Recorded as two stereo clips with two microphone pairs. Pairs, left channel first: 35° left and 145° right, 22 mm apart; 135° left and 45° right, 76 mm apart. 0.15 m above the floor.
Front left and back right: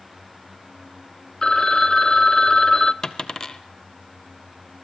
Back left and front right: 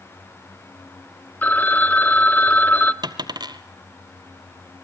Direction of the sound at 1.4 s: 80° left.